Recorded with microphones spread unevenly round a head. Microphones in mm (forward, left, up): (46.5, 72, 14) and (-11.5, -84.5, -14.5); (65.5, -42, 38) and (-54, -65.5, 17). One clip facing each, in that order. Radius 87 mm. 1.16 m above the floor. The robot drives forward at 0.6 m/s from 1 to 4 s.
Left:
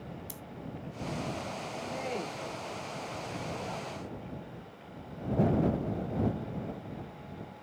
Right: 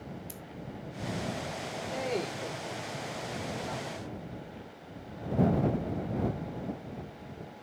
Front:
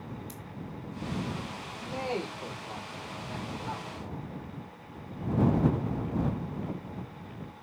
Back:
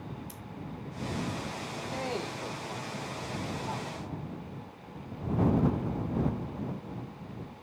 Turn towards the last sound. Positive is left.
turn(degrees=-90)